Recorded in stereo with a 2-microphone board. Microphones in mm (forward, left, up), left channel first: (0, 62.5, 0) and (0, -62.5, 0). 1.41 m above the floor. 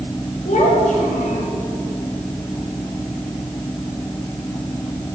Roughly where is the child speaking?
Left.